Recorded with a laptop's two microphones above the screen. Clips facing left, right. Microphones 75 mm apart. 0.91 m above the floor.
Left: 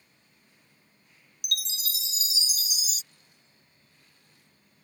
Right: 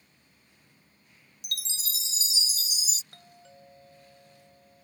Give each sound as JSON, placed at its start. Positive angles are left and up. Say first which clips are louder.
{"t": 1.4, "sound": "a chime", "louder": "left 4 dB", "side_deg": -30}
{"t": 3.1, "sound": "a doorbell", "louder": "right 11 dB", "side_deg": -75}